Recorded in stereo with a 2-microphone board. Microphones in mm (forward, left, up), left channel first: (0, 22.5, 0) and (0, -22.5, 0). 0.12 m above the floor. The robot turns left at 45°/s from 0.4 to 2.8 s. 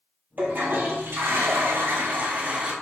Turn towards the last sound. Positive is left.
turn(degrees=-155)